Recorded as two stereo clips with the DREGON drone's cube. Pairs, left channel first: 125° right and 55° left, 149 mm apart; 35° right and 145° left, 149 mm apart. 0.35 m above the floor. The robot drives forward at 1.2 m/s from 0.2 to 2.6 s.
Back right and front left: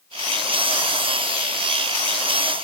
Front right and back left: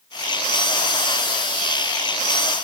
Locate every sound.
Only background noise.